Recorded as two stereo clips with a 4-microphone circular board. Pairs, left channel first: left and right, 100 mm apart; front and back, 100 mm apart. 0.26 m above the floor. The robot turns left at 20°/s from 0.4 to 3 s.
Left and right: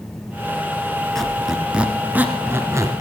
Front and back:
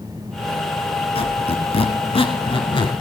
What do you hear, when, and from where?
1.1 s a squeak: 5° left, 1.1 m; by 3.0 s 35° right, 1.1 m